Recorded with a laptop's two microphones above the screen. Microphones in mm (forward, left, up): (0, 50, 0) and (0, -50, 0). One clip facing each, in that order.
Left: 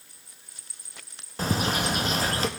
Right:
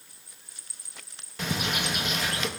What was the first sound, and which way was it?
A bird, 35° left (ahead or behind).